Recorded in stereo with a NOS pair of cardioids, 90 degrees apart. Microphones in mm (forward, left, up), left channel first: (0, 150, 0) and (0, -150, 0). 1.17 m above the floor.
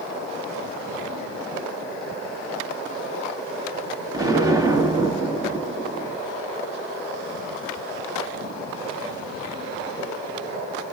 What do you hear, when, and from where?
4.1 s an explosion: 15° right, 1.3 m